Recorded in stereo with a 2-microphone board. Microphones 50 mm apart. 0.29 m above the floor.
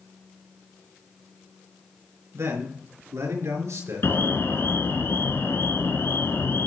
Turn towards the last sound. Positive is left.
turn(degrees=55)  # may be behind; listen again after turning